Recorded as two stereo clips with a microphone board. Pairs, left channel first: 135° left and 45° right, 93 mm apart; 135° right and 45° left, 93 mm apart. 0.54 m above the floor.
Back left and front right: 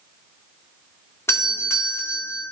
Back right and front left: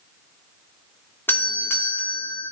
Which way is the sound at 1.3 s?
175° left.